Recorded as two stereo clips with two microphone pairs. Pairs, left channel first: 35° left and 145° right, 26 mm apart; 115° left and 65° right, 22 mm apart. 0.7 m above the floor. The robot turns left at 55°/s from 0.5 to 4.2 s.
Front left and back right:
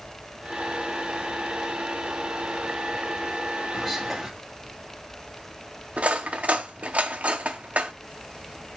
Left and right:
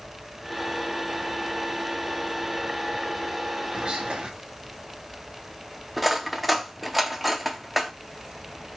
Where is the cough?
No cough in this recording.